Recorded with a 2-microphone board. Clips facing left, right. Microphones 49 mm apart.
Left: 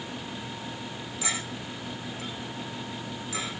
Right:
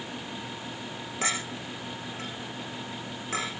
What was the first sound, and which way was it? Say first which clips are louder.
A clink: right 2 dB; 50° right (ahead or behind).